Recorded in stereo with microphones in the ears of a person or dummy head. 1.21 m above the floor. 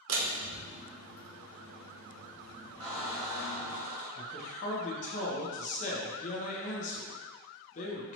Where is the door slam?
75° right (ahead or behind), 0.8 m.